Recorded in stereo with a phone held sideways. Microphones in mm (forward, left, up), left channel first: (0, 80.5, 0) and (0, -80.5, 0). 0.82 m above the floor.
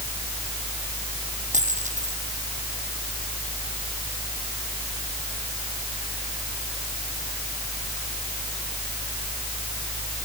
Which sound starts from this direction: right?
A dropped coin, at 1.5 s.